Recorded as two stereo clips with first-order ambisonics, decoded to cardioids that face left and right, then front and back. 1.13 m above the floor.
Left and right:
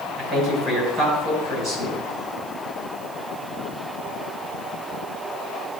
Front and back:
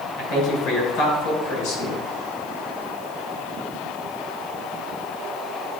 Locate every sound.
0.2 s a man speaking: 30° right, 4 m